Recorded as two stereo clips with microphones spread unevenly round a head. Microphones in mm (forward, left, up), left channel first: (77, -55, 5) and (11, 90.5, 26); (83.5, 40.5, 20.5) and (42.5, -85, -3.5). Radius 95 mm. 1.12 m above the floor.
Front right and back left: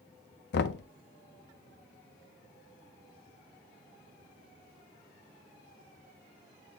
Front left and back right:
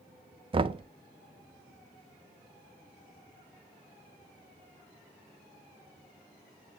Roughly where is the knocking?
Ahead right.